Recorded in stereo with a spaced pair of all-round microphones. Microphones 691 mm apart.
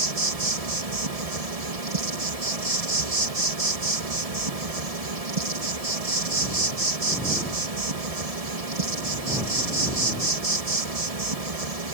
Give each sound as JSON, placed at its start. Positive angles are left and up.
{"t": 0.0, "sound": "an insect", "side_deg": -55}